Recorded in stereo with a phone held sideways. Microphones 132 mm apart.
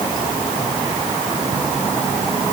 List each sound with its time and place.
Only background noise.